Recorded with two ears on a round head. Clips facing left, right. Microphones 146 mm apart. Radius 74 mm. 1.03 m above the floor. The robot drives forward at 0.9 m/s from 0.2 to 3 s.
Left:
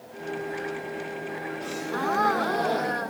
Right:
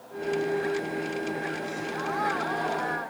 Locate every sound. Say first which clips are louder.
1.6 s a gasp: left 3 dB; 60° left (ahead or behind); by 3.1 s 45° left (ahead or behind)